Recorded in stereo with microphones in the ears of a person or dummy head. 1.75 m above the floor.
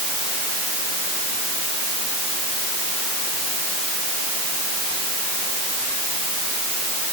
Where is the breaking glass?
I don't hear breaking glass.